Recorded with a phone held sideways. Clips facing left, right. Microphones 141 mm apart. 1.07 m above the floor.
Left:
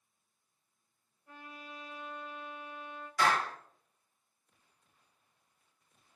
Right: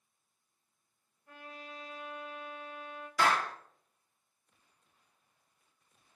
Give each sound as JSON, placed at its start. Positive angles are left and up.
{"t": 1.3, "sound": "a trumpet", "side_deg": 25, "distance_m": 1.4}
{"t": 3.2, "sound": "a clap", "side_deg": -75, "distance_m": 0.8}